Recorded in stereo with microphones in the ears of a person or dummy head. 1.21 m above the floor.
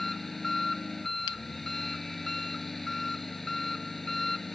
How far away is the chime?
I don't hear a chime.